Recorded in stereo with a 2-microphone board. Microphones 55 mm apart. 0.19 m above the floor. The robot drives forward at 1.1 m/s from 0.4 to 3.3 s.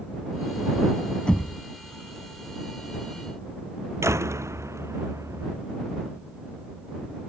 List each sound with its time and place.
1.3 s knocking: 20° left (ahead or behind); by 1.6 s 15° left (ahead or behind)
4.0 s a door slam: 55° right (ahead or behind)